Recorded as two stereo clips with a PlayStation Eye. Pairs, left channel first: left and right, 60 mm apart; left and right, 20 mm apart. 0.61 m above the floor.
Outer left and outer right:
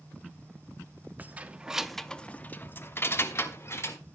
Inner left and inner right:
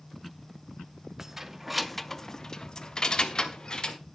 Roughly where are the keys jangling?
Right.